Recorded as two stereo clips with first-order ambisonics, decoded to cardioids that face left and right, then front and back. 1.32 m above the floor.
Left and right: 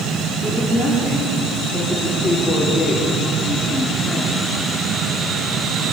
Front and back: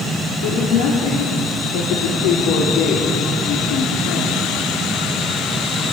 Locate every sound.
0.4 s a woman speaking: 5° left, 4 m